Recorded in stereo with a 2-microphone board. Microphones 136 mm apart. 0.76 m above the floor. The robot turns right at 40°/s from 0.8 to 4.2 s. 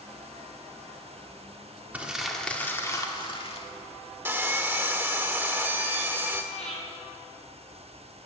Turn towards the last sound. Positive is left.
turn(degrees=60)  # may be behind; listen again after turning